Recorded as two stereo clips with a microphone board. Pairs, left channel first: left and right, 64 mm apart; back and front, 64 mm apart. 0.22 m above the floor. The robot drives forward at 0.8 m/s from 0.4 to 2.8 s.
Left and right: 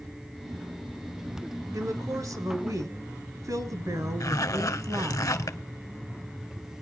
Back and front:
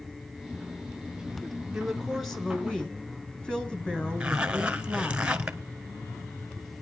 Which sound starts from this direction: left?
A zipper, at 4.2 s.